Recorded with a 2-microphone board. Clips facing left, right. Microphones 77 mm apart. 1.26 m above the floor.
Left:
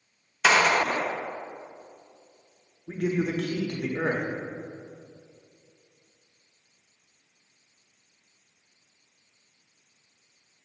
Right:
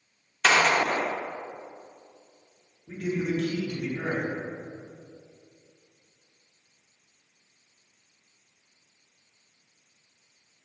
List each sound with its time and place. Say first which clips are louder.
0.4 s a gunshot: left 1 dB; 5° left (ahead or behind), 0.6 m
2.9 s a man speaking: left 2 dB; 60° left (ahead or behind), 0.8 m